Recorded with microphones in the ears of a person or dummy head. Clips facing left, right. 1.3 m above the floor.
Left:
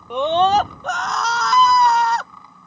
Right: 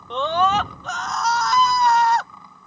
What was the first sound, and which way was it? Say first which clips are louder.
A scream: left 4 dB; 10° left (ahead or behind).